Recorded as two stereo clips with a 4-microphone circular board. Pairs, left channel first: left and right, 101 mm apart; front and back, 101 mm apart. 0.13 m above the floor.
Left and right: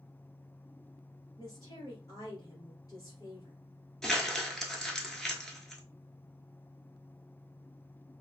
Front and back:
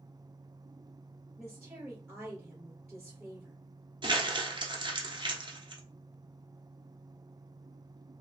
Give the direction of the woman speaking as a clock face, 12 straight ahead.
9 o'clock.